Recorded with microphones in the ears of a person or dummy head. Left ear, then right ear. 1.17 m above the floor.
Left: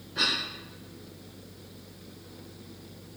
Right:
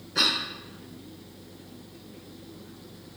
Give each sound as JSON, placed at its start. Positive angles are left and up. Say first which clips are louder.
{"t": 0.1, "sound": "a cough", "louder": "right 3 dB", "side_deg": -50, "distance_m": 0.6}